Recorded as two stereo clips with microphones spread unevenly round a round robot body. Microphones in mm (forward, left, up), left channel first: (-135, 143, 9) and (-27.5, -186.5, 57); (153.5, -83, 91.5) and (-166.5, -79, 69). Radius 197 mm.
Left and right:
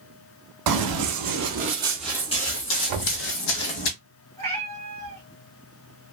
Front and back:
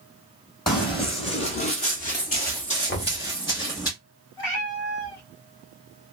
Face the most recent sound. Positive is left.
turn(degrees=25)